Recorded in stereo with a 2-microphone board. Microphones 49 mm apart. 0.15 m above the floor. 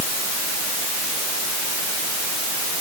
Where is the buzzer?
I don't hear a buzzer.